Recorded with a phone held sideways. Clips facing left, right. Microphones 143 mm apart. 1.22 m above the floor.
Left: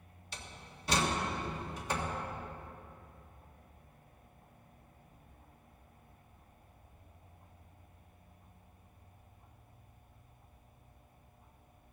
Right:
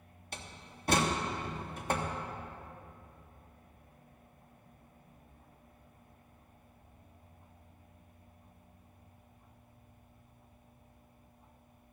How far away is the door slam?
About 1.4 m.